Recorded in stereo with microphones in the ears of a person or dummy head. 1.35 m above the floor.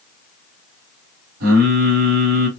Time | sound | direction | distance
1.4 | singing | 50° right (ahead or behind) | 1.8 m